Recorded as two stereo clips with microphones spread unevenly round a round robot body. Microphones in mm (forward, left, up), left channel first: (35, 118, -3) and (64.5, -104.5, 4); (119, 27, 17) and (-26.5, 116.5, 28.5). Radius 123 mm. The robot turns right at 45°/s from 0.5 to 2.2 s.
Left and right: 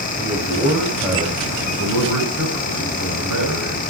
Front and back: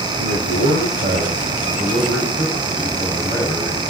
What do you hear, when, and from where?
0.2 s a man speaking: 165° left, 5 m; by 3.8 s 120° right, 5 m